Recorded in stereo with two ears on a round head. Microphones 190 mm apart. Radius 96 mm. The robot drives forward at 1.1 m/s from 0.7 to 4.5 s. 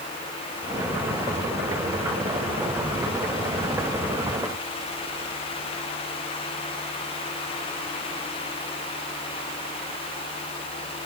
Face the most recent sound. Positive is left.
No sound to turn to.